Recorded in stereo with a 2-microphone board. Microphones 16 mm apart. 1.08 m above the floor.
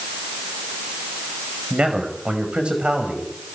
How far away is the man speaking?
About 5 m.